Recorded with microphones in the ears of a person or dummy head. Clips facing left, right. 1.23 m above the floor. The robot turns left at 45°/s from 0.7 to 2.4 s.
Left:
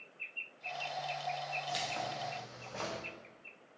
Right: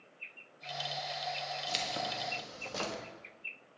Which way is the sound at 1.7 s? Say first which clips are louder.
Right 1 dB; 35° right.